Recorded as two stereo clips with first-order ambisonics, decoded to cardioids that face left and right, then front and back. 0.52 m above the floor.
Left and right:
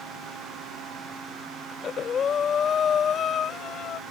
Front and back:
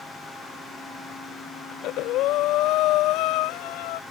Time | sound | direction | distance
1.7 | breathing | 30° left | ?